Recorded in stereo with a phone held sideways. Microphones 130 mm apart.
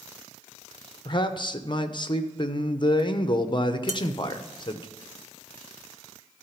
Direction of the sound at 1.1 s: 40° left (ahead or behind).